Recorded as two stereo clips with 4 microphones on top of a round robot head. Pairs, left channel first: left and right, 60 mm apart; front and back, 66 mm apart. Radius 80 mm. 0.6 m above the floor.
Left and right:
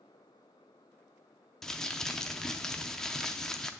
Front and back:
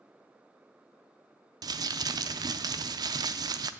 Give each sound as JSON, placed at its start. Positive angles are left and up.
{"t": 1.6, "sound": "crumpling", "azimuth_deg": 170, "distance_m": 0.5}